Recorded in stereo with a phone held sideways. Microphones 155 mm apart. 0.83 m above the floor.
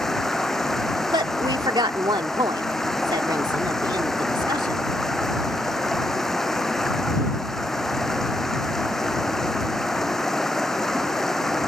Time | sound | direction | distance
0.0 | running water | 5° left (ahead or behind) | ?
1.1 | a woman speaking | 30° right (ahead or behind) | ?